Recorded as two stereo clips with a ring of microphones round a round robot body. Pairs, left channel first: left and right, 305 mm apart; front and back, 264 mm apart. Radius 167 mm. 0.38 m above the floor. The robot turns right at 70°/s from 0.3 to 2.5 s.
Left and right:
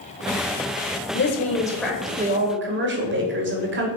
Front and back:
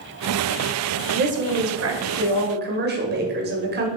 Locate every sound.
1.1 s a woman speaking: 130° left, 1.6 m; by 3.9 s 135° right, 1.6 m